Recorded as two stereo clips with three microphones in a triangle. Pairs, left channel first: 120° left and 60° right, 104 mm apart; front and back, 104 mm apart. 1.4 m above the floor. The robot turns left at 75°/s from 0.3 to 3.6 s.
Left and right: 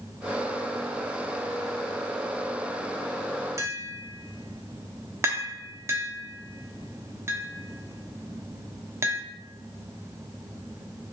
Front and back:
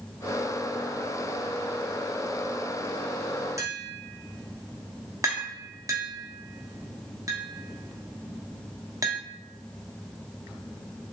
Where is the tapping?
120° right, 0.7 m; by 9.2 s 125° right, 0.7 m.